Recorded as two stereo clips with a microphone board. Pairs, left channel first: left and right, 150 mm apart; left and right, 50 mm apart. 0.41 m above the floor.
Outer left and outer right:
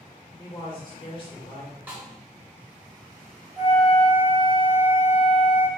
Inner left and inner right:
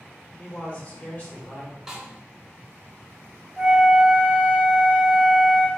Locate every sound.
0.4 s a man speaking: 35° left (ahead or behind), 1.3 m
1.9 s a snare drum: 10° right (ahead or behind), 1.0 m
3.6 s a flute: 25° right (ahead or behind), 1.0 m